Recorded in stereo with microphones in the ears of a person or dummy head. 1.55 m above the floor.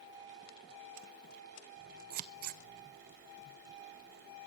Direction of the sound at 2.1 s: 55° right (ahead or behind).